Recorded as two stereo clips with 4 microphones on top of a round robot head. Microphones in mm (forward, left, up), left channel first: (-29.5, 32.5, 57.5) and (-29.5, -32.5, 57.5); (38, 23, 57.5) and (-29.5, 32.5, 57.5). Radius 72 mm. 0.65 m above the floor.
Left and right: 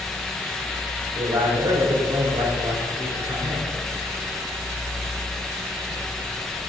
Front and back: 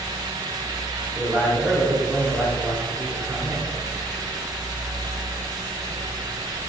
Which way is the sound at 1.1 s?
90° right.